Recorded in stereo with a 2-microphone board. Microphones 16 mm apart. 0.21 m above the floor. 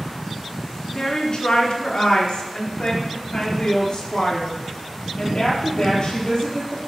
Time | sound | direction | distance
0.9 | a woman speaking | 50° left (ahead or behind) | 2 m